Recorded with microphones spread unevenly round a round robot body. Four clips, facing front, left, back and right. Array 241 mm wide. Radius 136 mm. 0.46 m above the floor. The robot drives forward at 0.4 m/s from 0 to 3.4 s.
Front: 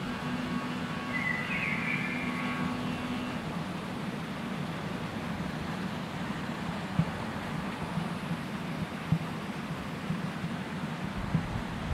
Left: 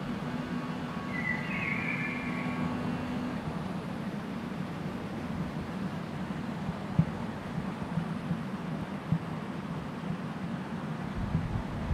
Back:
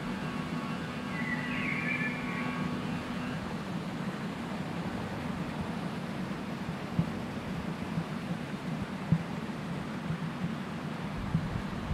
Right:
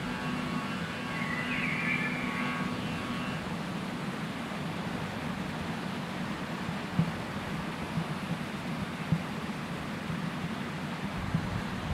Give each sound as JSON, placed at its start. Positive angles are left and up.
{"t": 1.1, "sound": "a bird", "azimuth_deg": 120, "distance_m": 2.0}